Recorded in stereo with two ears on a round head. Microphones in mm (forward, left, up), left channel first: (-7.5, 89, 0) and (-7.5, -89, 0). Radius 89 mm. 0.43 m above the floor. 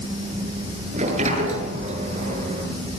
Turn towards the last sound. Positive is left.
turn(degrees=-35)  # may be behind; listen again after turning